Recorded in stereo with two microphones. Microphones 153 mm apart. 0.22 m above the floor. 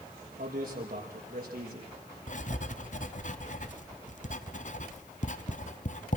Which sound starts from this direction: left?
Writing, at 2.3 s.